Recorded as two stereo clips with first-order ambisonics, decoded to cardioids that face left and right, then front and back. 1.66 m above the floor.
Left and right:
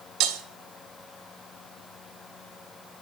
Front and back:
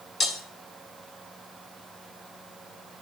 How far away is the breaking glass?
About 2.5 m.